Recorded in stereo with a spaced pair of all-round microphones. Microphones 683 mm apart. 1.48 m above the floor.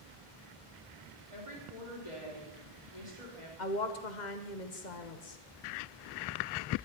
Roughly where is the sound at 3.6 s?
Left.